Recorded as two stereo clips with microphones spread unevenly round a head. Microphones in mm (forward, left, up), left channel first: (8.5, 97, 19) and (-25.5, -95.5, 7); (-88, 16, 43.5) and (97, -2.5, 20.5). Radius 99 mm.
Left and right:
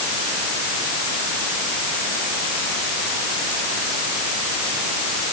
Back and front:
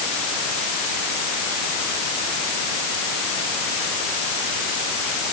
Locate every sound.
Only background noise.